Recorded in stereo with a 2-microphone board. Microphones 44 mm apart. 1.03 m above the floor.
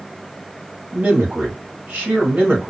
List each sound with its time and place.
0.9 s a man speaking: 45° right (ahead or behind), 2.0 m